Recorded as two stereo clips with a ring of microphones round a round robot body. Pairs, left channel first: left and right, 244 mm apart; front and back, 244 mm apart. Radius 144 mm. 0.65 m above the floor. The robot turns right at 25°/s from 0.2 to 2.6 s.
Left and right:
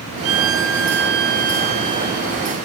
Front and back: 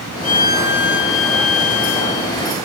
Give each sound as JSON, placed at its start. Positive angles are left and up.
{"t": 0.2, "sound": "a violin", "azimuth_deg": -60, "distance_m": 0.6}